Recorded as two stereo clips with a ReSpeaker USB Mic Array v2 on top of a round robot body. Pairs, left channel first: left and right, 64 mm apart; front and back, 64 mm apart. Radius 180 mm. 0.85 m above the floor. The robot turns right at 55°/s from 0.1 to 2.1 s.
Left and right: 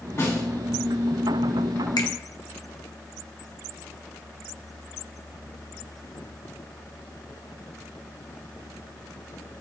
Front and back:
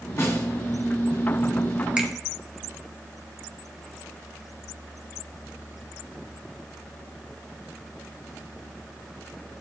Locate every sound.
0.2 s a snare drum: 50° left, 2.5 m; by 0.5 s 65° left, 2.5 m
2.0 s a finger snap: 105° left, 0.9 m; by 2.1 s 115° left, 0.9 m